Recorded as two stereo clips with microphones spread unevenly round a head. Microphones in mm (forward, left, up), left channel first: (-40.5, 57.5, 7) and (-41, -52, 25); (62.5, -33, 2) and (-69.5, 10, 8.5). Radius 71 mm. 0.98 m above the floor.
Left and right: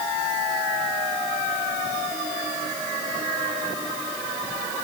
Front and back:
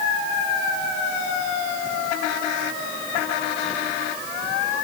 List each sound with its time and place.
Only background noise.